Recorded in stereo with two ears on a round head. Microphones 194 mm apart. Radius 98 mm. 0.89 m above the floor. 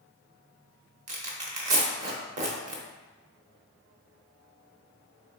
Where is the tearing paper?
35° right (ahead or behind), 0.8 m.